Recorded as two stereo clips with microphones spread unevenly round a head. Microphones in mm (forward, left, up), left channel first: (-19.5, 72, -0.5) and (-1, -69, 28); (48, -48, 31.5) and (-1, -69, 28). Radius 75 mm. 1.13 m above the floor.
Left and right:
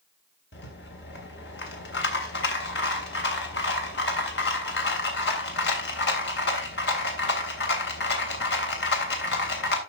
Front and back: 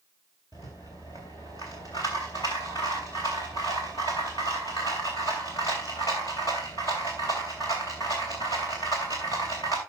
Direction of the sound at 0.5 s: 80° left.